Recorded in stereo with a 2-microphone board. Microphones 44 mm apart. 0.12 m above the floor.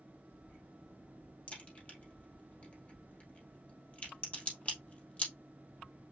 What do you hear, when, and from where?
1.5 s a crack: 30° left (ahead or behind), 2.5 m